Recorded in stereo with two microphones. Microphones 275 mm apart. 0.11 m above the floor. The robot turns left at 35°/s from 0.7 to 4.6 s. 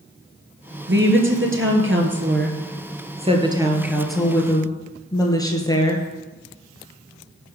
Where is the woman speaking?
65° right, 2.5 m; by 6.0 s 160° left, 2.5 m.